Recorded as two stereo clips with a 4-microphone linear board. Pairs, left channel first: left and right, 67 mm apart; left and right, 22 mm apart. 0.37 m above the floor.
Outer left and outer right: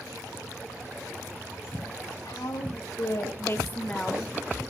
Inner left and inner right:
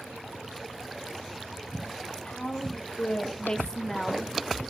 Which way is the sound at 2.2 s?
65° left (ahead or behind).